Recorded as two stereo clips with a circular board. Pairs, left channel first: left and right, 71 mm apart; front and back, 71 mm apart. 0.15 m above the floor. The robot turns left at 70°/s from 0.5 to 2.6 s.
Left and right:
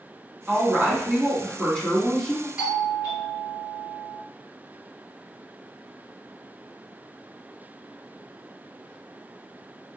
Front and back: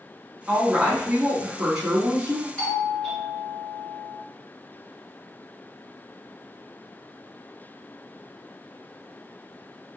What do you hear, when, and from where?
0.5 s a woman speaking: 115° right, 1.3 m; by 2.5 s 110° left, 1.3 m
2.6 s a doorbell: 55° right, 1.7 m